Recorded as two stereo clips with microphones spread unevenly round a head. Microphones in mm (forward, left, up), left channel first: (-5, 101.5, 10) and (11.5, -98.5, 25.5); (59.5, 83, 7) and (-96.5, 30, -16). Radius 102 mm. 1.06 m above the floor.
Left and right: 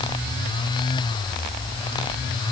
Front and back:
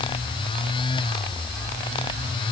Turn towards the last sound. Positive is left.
No sound to turn to.